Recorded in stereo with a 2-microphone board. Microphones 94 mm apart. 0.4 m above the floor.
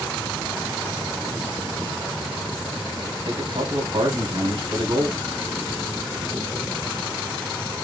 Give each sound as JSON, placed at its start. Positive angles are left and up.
{"t": 3.2, "sound": "a man speaking", "side_deg": -65, "distance_m": 3.0}